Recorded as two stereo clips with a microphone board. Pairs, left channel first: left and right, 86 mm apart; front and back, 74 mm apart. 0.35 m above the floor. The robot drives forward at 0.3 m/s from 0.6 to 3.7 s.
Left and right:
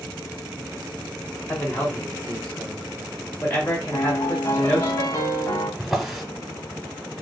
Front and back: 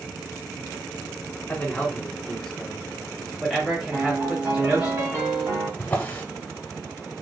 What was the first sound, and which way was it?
A man speaking, 45° left.